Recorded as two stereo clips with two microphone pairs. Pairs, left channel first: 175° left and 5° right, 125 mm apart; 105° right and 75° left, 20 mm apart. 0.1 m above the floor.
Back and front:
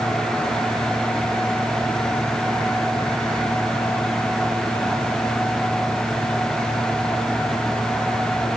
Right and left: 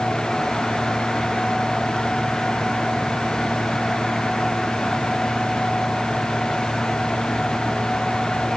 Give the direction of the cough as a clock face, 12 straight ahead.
I don't hear a cough.